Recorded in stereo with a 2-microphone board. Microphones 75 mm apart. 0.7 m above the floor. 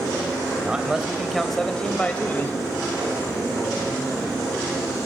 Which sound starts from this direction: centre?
A man speaking, at 0.6 s.